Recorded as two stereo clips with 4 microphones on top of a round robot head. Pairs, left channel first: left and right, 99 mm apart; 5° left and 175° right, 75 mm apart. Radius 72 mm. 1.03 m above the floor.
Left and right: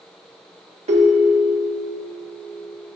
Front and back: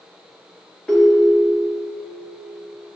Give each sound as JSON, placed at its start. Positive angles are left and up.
{"t": 0.9, "sound": "a ringtone", "azimuth_deg": -75, "distance_m": 1.1}